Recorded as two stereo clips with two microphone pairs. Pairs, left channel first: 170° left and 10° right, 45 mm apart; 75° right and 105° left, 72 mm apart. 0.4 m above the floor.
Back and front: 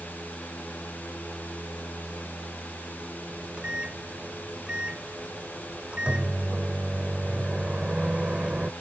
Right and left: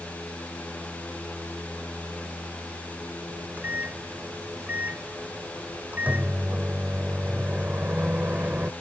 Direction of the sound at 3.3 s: 45° left.